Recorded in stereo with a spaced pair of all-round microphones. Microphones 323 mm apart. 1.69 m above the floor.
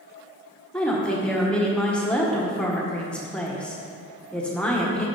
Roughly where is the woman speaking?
Centre.